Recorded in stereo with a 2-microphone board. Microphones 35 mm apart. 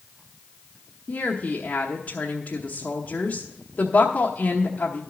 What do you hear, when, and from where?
1.1 s a woman speaking: 45° left (ahead or behind), 1.0 m